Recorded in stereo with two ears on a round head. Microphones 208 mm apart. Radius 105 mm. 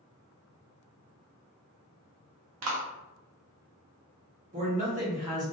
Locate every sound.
2.6 s a clap: 70° right (ahead or behind), 0.6 m
4.5 s a man speaking: 35° right (ahead or behind), 1.0 m